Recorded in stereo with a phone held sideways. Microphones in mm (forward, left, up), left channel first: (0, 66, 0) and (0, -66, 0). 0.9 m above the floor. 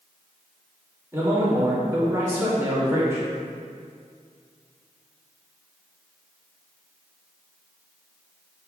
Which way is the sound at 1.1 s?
20° right (ahead or behind).